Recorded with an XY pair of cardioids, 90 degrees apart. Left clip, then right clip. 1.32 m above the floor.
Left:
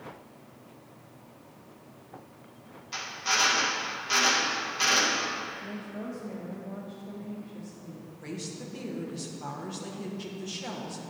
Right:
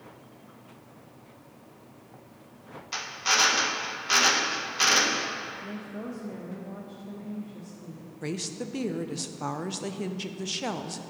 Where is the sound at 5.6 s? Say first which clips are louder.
Even; 15° right, 1.0 m.